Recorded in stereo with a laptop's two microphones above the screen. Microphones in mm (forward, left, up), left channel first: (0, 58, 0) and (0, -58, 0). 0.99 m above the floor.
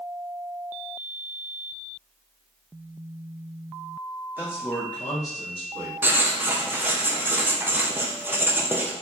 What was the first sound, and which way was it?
A man speaking, 20° right (ahead or behind).